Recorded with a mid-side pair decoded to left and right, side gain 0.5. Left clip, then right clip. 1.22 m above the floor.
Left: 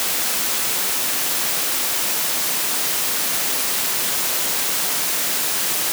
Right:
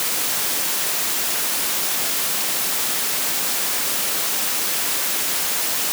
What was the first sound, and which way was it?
Only background noise.